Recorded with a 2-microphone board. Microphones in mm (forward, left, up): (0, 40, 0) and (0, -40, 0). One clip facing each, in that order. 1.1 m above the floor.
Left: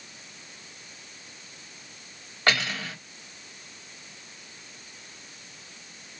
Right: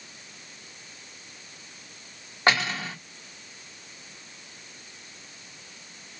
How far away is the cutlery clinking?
About 1.8 m.